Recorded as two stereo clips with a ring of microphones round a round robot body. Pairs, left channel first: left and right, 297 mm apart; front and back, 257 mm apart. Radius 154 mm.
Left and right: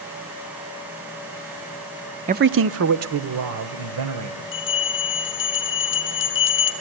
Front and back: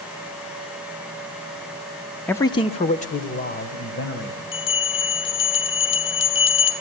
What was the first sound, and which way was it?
A man speaking, 75° right.